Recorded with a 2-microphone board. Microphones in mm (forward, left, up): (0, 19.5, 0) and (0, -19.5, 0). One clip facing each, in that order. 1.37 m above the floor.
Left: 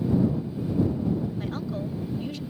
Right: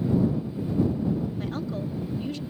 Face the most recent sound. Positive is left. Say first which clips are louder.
# even
turn(degrees=5)  # may be behind; listen again after turning